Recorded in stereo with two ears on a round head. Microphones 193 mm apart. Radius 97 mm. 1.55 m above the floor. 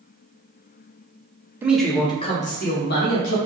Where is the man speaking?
10° right (ahead or behind), 0.8 m; by 3.4 s 55° left (ahead or behind), 1.7 m.